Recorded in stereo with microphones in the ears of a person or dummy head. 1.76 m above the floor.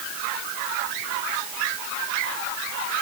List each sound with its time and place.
Only background noise.